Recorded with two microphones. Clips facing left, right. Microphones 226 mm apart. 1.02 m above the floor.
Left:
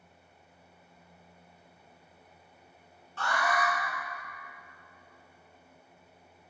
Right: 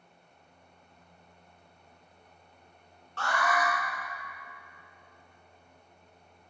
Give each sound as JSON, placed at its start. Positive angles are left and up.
{"t": 3.2, "sound": "an alarm", "side_deg": -70, "distance_m": 2.5}